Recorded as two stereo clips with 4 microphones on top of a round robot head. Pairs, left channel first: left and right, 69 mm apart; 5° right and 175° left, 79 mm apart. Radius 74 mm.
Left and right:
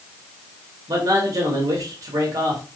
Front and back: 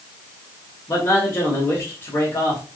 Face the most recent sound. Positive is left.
turn(degrees=-60)